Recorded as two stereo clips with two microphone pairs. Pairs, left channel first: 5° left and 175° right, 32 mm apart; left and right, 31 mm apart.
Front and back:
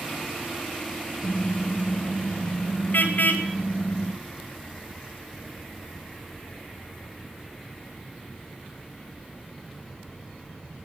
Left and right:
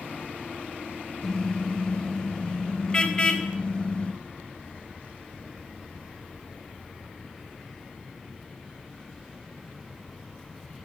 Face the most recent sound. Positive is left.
turn(degrees=30)